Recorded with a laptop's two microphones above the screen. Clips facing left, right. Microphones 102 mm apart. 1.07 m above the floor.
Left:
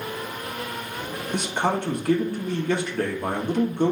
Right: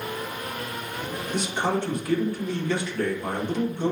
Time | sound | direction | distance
1.3 | a man speaking | 55° left (ahead or behind) | 1.0 m